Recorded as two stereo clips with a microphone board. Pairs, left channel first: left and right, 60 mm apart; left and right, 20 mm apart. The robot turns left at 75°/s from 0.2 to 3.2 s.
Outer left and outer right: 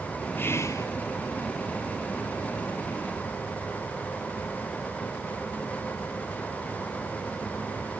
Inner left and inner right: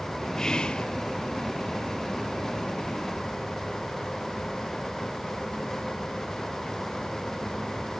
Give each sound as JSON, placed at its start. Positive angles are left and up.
{"t": 0.4, "sound": "whispering", "azimuth_deg": 145, "distance_m": 0.6}